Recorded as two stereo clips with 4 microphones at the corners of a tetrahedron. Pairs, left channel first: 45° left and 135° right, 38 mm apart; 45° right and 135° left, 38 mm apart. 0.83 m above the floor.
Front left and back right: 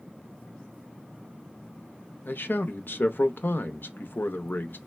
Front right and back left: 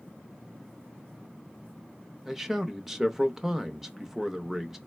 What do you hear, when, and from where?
2.2 s a man speaking: 55° left, 0.6 m